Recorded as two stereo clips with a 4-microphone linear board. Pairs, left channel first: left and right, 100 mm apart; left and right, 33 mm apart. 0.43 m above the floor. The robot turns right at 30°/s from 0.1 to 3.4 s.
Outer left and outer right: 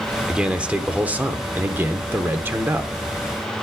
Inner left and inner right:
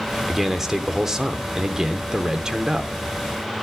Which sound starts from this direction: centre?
A man speaking, at 0.3 s.